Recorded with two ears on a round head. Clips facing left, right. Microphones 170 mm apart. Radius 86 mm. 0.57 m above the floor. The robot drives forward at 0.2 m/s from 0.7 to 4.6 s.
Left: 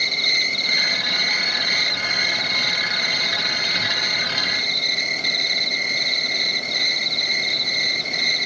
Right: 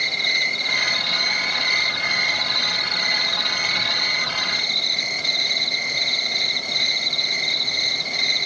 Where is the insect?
50° left (ahead or behind), 0.8 m; by 8.5 s 25° left (ahead or behind), 1.3 m.